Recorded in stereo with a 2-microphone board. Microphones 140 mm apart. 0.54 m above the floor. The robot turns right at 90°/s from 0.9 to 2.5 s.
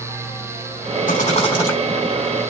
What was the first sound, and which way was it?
A rattle, 105° left.